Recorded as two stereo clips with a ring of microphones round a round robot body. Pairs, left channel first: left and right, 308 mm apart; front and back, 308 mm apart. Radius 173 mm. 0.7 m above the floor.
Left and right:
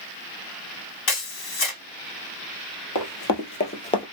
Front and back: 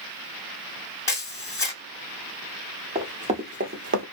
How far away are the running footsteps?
About 1.2 m.